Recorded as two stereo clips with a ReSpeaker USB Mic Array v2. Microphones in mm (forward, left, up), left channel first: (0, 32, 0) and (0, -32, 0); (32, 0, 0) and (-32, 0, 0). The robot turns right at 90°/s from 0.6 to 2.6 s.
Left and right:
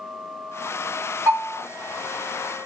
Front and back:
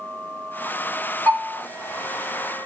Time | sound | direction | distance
1.3 | a bell | 50° right | 1.5 m